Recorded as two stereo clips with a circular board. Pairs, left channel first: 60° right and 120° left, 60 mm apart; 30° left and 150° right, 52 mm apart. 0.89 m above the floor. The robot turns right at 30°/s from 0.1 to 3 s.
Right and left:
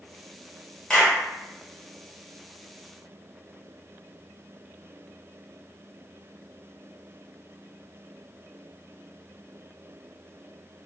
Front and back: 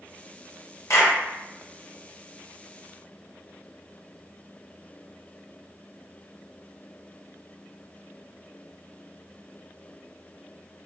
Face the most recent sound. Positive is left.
turn(degrees=75)